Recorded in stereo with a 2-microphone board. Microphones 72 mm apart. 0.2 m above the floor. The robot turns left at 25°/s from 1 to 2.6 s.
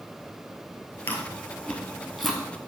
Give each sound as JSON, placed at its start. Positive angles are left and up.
{"t": 1.1, "sound": "chewing", "side_deg": 25, "distance_m": 1.3}